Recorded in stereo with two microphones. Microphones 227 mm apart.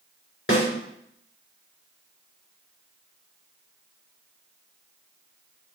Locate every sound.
0.5 s a snare drum: 65° left (ahead or behind), 3 m